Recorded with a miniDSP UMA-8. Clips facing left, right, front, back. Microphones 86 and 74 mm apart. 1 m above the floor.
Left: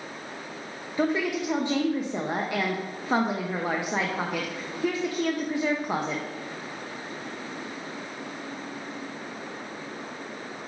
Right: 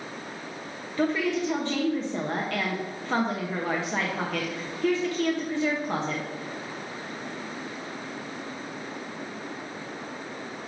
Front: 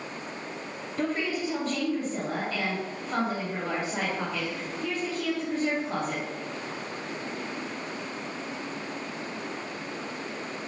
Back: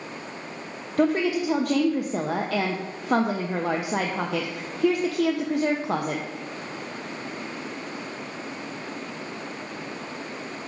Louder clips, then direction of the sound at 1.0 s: Even, back 7 dB; 165° left.